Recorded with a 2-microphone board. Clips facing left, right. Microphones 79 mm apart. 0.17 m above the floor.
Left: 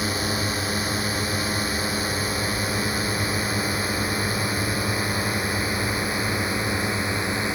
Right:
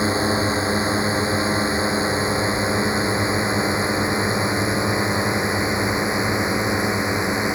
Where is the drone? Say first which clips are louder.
Right 6 dB; 25° right (ahead or behind); by 7.6 s 20° right (ahead or behind).